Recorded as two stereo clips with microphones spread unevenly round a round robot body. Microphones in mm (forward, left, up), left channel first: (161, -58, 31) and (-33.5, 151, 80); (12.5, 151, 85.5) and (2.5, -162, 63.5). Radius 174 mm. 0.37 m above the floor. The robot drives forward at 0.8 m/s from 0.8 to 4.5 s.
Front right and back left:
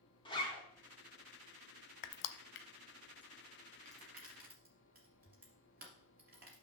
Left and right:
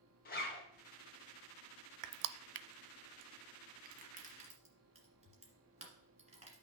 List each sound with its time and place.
0.2 s a zipper: 25° left, 2.5 m
2.0 s crushing: 55° right, 0.6 m; by 6.6 s 165° right, 1.7 m